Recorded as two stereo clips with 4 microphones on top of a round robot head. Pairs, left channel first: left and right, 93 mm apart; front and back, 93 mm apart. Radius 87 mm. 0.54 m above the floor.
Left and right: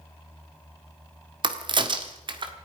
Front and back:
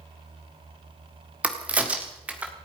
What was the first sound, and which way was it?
A crack, 105° right.